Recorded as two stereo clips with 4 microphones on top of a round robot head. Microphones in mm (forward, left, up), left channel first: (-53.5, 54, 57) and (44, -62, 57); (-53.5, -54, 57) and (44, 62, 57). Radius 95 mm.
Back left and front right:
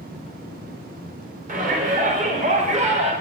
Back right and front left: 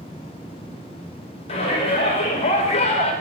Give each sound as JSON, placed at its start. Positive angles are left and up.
{"t": 1.5, "sound": "a shout", "azimuth_deg": -80, "distance_m": 2.5}